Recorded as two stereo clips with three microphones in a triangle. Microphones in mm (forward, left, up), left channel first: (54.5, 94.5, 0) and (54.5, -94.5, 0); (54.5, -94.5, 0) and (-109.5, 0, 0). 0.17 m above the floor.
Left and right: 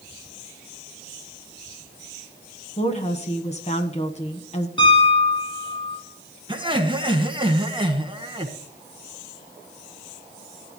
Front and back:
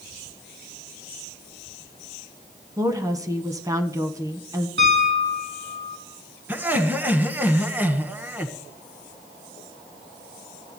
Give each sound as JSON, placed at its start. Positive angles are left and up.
{"t": 2.8, "sound": "a woman speaking", "azimuth_deg": 95, "distance_m": 1.2}
{"t": 4.8, "sound": "a piano", "azimuth_deg": 150, "distance_m": 8.0}
{"t": 6.5, "sound": "laughter", "azimuth_deg": -135, "distance_m": 1.4}